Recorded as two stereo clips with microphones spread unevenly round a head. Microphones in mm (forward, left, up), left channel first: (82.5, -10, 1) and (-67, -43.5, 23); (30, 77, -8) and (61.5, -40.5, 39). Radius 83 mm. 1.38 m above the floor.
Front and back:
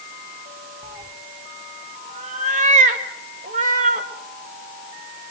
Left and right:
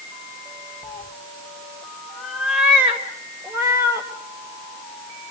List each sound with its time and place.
0.8 s a cat meowing: 175° left, 1.1 m; by 4.1 s 135° right, 2.5 m